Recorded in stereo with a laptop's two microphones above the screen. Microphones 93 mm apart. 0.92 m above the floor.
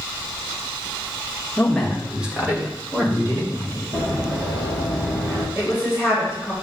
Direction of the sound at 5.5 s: 25° right (ahead or behind).